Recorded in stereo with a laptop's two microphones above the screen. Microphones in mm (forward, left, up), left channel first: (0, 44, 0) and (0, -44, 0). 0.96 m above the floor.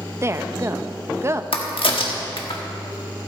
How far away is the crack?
About 1.4 m.